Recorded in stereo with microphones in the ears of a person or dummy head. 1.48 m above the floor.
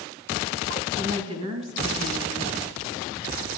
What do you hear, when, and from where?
1.0 s a woman speaking: 35° right (ahead or behind), 1.5 m